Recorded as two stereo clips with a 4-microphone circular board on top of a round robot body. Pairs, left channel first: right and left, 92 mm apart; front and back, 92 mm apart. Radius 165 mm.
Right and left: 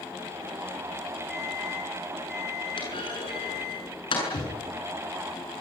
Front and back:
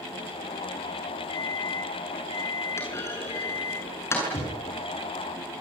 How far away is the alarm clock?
About 8.5 m.